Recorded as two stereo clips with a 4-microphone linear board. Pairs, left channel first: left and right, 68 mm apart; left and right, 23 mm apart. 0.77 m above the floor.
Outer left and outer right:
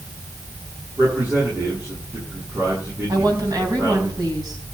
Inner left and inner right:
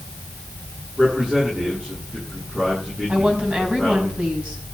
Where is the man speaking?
40° right (ahead or behind), 9.5 m.